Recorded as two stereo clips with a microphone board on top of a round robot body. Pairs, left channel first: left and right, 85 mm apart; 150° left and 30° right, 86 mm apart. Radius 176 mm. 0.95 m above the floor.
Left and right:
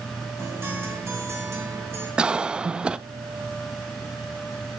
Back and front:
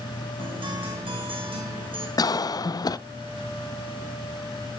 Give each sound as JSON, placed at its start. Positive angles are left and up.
{"t": 0.4, "sound": "a guitar", "azimuth_deg": -30, "distance_m": 3.0}
{"t": 2.2, "sound": "a cough", "azimuth_deg": -170, "distance_m": 0.6}